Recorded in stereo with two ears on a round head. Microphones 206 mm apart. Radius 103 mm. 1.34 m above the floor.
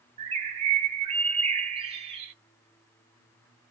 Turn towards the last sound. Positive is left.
turn(degrees=-25)  # may be behind; listen again after turning